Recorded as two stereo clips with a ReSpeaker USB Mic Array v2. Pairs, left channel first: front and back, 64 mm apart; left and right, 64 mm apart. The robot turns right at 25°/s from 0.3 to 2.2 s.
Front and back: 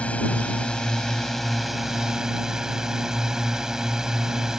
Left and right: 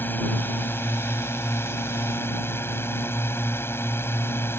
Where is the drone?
55° left; by 4.6 s 105° left.